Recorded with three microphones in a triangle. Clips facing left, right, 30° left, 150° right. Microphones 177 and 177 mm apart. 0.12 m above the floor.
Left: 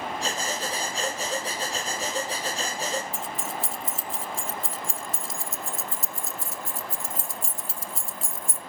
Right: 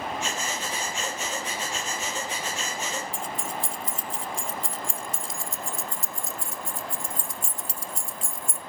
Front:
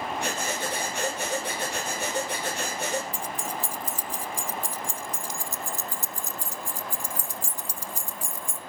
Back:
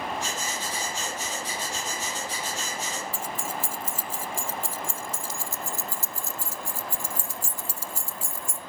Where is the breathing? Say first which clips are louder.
Left 2 dB, front 3 dB; 40° left, 3 m.